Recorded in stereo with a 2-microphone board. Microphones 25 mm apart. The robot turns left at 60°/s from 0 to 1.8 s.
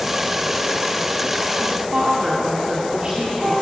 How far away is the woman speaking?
About 3 m.